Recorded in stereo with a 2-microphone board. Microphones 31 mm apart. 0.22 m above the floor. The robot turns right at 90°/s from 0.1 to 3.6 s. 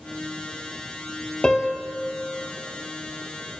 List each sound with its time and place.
1.4 s a piano: 160° left, 0.9 m; by 1.9 s 155° right, 0.9 m